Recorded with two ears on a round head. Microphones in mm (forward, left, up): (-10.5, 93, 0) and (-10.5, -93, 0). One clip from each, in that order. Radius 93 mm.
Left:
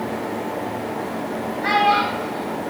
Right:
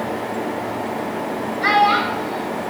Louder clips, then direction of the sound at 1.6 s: Right 2 dB; 60° right (ahead or behind).